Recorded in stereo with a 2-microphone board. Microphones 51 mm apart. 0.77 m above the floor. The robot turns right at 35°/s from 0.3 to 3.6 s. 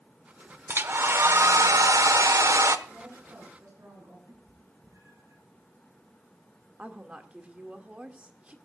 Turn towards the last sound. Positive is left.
turn(degrees=-20)  # may be behind; listen again after turning